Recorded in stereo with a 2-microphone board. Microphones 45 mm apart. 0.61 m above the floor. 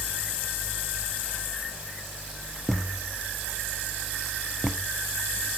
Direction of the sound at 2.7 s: 5° left (ahead or behind).